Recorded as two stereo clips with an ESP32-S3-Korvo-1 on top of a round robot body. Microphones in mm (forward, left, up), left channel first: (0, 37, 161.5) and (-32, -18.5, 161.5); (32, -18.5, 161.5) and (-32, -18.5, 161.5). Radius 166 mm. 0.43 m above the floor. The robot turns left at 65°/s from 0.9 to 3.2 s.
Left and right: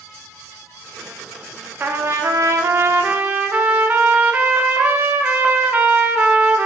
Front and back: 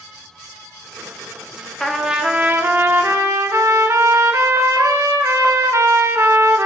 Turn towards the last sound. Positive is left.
turn(degrees=-170)